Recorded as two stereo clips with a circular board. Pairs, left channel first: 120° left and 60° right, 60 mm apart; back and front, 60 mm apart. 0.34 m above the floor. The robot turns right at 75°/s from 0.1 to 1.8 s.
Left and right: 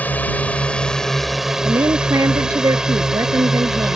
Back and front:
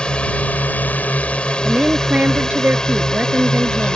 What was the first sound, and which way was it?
A drone, 125° left.